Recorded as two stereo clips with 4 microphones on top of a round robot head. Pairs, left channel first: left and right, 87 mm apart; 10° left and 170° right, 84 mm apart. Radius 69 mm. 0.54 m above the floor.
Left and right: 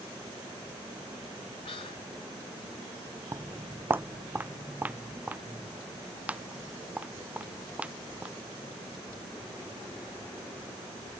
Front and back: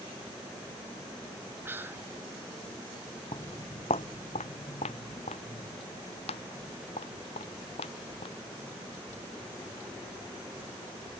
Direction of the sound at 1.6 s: 125° left.